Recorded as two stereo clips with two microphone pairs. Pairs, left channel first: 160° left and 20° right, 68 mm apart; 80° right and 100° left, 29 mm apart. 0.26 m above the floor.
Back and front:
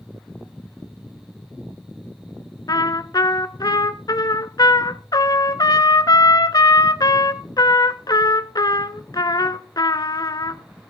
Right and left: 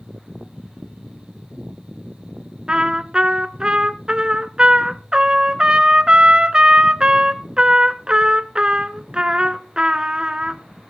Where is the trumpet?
160° left, 0.7 m.